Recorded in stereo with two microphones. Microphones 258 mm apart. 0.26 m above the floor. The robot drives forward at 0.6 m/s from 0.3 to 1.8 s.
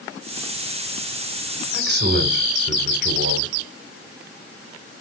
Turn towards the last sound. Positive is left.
turn(degrees=-40)  # may be behind; listen again after turning